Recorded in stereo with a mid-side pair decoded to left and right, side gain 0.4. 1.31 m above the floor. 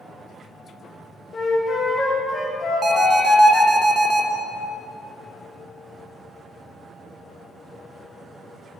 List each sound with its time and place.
1.3 s a flute: 50° left, 1.2 m
2.8 s an alarm: 35° right, 1.0 m